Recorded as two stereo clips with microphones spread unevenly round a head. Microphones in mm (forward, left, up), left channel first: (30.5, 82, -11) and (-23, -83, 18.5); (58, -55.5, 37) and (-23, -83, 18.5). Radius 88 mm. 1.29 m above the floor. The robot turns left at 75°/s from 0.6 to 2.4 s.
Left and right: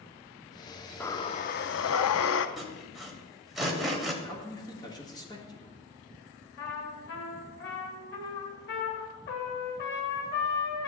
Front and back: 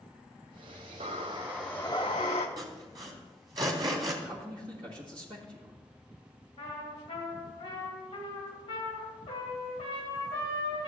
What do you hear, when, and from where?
1.0 s breathing: 155° left, 0.5 m; by 2.5 s 50° left, 0.5 m
2.6 s sawing: 175° right, 1.1 m
4.2 s a man speaking: 145° left, 1.6 m
6.6 s a trumpet: 45° left, 1.9 m